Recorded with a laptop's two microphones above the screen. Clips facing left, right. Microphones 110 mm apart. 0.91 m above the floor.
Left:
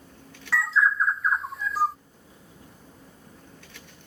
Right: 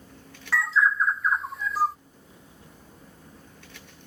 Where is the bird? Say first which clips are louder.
Even; centre (ahead or behind).